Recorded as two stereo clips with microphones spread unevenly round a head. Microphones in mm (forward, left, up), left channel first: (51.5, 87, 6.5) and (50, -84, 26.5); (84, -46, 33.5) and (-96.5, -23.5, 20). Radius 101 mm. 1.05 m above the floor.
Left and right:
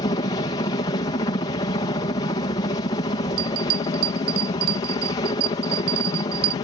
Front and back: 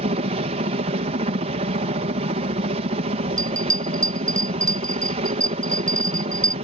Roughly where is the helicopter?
Behind left.